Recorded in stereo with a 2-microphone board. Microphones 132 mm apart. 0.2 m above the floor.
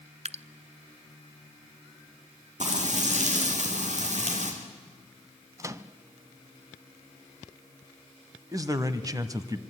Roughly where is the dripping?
Right.